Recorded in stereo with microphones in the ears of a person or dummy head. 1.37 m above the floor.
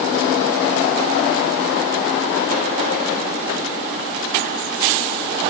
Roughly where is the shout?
I don't hear a shout.